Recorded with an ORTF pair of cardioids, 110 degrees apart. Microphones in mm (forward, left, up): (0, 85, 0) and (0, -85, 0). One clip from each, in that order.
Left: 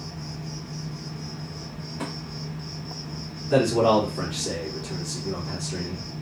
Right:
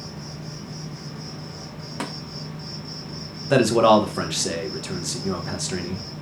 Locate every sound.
0.0 s an insect: 20° right, 0.9 m
2.0 s tapping: 60° right, 0.9 m
3.5 s a man speaking: 65° right, 0.7 m